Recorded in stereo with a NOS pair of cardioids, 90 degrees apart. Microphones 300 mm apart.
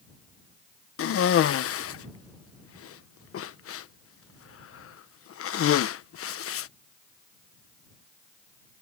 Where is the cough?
50° left.